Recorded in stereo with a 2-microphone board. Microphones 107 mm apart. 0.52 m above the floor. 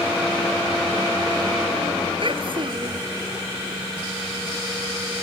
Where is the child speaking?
55° right (ahead or behind).